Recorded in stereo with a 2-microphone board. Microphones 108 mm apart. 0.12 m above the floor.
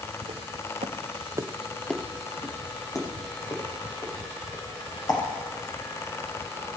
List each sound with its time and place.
0.2 s footsteps: 75° right (ahead or behind), 1.6 m; by 5.2 s 40° left (ahead or behind), 5.5 m